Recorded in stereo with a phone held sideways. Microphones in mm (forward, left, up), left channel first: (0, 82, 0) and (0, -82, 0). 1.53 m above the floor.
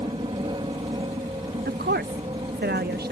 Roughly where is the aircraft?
Right.